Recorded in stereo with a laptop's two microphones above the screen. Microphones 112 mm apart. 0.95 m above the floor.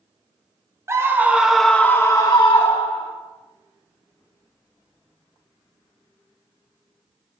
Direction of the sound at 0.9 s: 30° right (ahead or behind).